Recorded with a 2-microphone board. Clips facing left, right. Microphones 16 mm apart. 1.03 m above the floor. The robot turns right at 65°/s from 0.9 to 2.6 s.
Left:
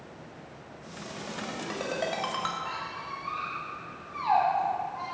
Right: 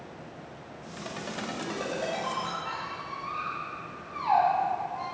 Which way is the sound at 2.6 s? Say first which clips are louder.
Even; centre (ahead or behind).